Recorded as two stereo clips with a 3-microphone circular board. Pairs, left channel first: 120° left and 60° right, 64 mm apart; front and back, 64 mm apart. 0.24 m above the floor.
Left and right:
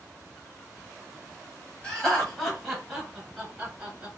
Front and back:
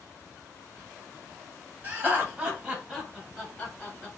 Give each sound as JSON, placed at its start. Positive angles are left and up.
{"t": 1.8, "sound": "laughter", "azimuth_deg": 180, "distance_m": 1.5}